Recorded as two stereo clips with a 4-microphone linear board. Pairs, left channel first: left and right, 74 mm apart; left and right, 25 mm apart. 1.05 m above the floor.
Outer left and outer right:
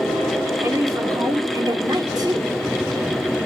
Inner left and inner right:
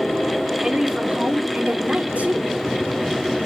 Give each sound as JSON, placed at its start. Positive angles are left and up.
{"t": 0.6, "sound": "a woman speaking", "side_deg": -40, "distance_m": 3.5}